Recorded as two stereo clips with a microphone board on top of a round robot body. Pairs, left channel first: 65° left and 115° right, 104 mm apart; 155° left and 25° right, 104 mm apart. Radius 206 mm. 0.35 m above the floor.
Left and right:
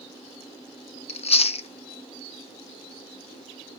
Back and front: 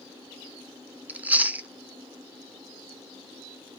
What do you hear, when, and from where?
1.1 s chewing: 55° left, 0.6 m